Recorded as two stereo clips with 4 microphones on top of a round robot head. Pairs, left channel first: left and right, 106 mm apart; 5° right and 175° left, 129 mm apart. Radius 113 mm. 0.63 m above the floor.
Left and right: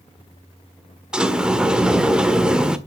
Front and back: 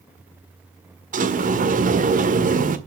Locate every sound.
1.1 s a sliding door: 170° right, 1.6 m